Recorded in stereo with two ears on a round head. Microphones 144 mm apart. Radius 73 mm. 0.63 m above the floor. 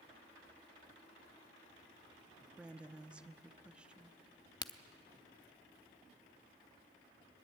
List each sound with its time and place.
2.6 s a woman speaking: 5° right (ahead or behind), 0.7 m
4.6 s a crack: 25° left (ahead or behind), 0.8 m